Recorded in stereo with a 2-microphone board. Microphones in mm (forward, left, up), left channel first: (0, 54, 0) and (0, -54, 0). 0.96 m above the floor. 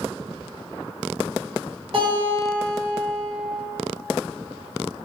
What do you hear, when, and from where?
1.9 s a guitar: 60° right (ahead or behind), 1.4 m